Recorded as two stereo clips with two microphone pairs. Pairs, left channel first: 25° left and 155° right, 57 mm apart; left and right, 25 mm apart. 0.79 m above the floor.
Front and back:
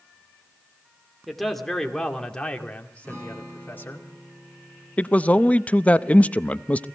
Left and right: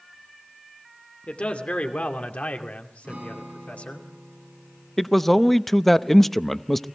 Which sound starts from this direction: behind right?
A guitar, at 3.0 s.